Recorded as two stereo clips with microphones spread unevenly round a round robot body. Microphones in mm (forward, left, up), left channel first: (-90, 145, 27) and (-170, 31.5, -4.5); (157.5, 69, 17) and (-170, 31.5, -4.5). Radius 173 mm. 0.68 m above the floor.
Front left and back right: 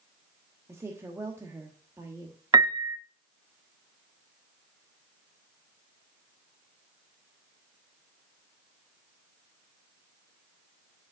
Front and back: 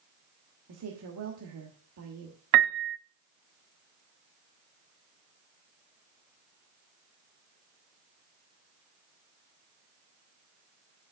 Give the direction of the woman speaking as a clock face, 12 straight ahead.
6 o'clock.